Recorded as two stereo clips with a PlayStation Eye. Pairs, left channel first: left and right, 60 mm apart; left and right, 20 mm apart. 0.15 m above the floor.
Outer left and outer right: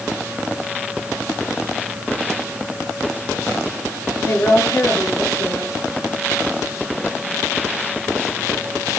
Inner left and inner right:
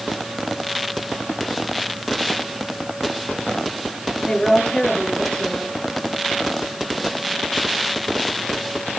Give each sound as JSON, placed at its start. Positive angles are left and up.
{"t": 4.2, "sound": "a woman speaking", "side_deg": 40, "distance_m": 3.5}